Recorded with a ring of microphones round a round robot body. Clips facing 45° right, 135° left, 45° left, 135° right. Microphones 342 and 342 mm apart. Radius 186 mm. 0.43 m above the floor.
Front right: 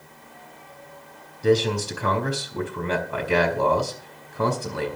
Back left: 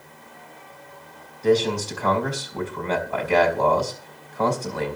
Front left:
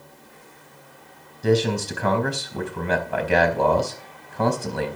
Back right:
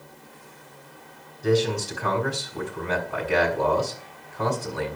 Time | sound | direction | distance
1.4 | a man speaking | 25° left | 4 m